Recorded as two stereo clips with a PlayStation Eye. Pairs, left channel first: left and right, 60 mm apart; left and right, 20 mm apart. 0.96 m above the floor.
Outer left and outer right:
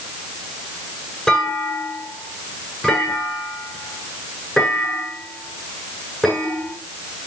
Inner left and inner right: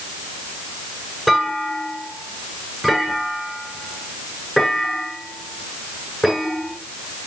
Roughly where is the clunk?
Centre.